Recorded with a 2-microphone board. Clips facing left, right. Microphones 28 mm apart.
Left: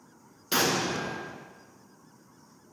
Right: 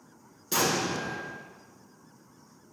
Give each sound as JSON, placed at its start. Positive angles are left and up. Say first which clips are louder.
{"t": 0.5, "sound": "an explosion", "louder": "left 1 dB", "side_deg": 40, "distance_m": 0.5}